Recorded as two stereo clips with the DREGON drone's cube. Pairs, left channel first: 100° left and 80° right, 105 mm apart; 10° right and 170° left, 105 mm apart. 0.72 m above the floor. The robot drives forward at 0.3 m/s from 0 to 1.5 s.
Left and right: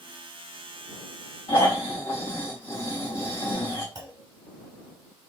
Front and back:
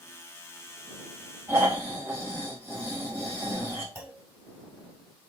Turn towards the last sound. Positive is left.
turn(degrees=-125)